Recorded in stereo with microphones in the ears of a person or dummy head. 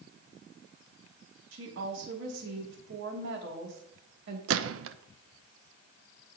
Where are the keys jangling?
I don't hear keys jangling.